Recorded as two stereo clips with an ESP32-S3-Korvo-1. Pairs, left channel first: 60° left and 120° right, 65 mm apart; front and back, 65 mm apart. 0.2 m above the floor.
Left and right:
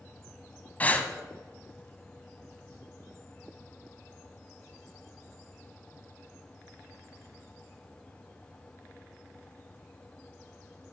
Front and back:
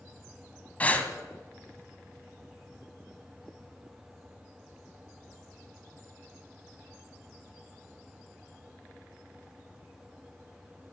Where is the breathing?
35° left, 0.9 m.